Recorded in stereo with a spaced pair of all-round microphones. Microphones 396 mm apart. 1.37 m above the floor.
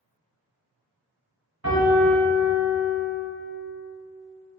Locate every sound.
1.6 s a piano: 60° right (ahead or behind), 1.9 m